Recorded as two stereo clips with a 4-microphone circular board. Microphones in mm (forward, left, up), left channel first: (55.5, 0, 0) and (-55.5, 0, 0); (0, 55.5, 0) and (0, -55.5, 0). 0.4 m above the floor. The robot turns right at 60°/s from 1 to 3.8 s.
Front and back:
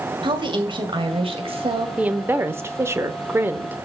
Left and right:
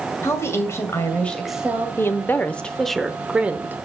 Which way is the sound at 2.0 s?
120° left.